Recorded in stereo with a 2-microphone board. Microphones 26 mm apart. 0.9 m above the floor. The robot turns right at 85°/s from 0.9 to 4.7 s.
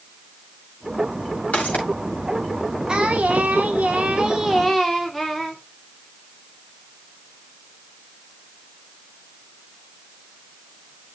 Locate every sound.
1.5 s footsteps: 60° left (ahead or behind), 7 m; by 1.8 s 85° left, 7 m
2.9 s singing: 150° right, 2.5 m; by 5.6 s 5° left, 2.5 m